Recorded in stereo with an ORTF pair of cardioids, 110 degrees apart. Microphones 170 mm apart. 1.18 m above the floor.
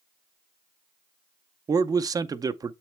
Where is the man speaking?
20° right, 0.5 m.